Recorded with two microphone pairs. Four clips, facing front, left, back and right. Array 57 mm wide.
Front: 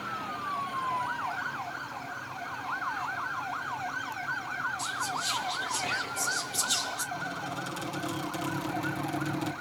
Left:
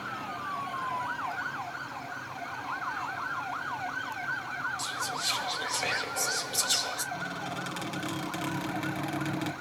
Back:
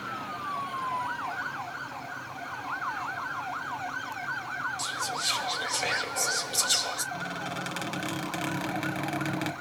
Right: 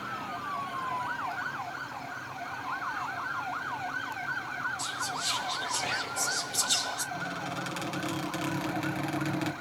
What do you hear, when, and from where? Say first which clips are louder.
4.8 s whispering: even, even; 145° left, 3.5 m
7.1 s a squeak: even, back 1 dB; 175° right, 3 m